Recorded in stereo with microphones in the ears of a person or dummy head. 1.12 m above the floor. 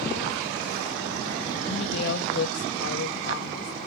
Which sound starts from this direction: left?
A woman speaking, at 1.6 s.